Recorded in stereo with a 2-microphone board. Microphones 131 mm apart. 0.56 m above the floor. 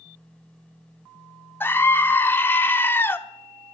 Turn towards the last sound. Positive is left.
turn(degrees=15)  # may be behind; listen again after turning